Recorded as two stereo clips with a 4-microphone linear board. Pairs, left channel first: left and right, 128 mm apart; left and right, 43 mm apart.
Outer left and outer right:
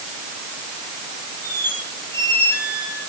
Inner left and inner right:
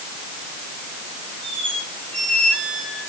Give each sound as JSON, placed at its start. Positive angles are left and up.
{"t": 1.4, "sound": "a squeak", "side_deg": 20, "distance_m": 8.0}